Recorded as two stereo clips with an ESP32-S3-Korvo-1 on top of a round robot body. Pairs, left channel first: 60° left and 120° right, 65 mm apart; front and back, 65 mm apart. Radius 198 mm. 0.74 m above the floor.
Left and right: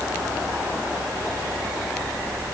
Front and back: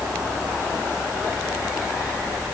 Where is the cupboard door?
No cupboard door in this recording.